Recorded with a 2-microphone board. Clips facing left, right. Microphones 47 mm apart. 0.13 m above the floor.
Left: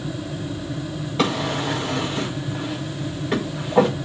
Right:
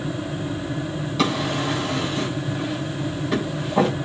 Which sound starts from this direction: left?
A drawer, at 1.2 s.